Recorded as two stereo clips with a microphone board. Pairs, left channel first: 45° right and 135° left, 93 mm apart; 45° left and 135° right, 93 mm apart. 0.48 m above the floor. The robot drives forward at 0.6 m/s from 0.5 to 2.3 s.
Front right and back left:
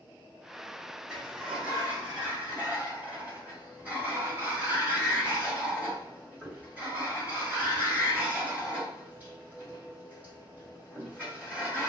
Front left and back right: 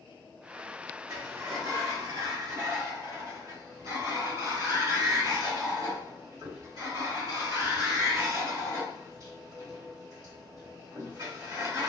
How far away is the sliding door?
About 1.4 m.